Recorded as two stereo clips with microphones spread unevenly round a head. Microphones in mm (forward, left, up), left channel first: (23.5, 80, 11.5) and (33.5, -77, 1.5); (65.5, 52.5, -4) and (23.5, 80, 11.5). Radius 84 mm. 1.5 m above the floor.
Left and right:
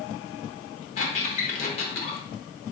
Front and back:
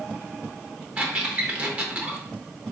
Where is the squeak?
125° left, 0.8 m.